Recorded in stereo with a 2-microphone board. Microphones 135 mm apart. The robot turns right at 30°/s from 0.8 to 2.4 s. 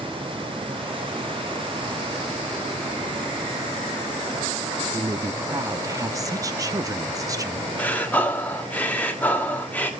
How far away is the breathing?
About 1.6 m.